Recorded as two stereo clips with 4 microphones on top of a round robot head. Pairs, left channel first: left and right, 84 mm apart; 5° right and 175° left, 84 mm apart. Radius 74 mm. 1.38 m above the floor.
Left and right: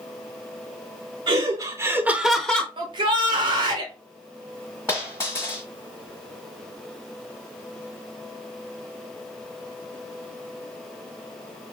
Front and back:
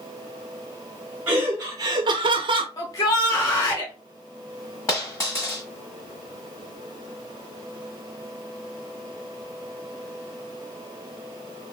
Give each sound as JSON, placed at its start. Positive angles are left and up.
{"t": 1.3, "sound": "laughter", "azimuth_deg": -115, "distance_m": 0.7}
{"t": 2.8, "sound": "a shout", "azimuth_deg": -60, "distance_m": 1.3}
{"t": 4.9, "sound": "a dropped coin", "azimuth_deg": 30, "distance_m": 1.5}